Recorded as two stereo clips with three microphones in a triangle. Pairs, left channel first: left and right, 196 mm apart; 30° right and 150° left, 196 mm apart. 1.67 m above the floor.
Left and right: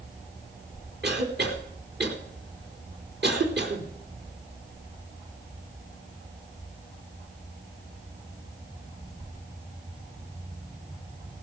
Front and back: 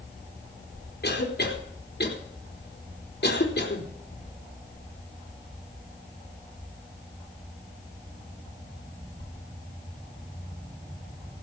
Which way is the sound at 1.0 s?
60° right.